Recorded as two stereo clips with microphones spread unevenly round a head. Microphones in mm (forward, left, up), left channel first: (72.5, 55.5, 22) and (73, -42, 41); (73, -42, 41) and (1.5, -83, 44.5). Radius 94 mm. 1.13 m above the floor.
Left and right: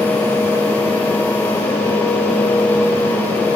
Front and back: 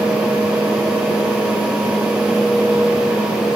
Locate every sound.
Only background noise.